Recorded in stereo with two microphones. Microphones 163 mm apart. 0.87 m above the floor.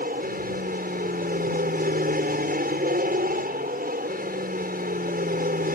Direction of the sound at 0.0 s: 65° right (ahead or behind).